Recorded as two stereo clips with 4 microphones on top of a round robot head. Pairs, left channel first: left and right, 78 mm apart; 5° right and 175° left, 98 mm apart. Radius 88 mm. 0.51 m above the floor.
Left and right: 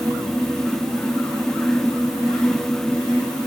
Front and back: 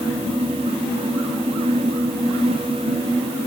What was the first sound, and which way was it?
Only background noise.